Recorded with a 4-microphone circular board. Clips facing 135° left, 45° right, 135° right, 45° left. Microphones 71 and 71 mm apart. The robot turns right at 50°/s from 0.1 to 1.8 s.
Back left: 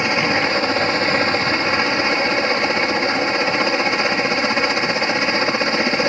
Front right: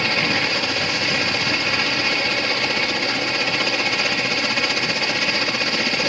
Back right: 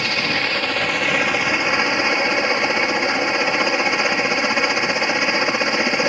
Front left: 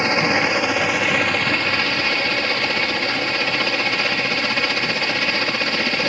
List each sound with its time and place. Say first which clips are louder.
0.0 s a helicopter: back left 4 dB, front left 4 dB; 85° left; by 6.1 s 170° left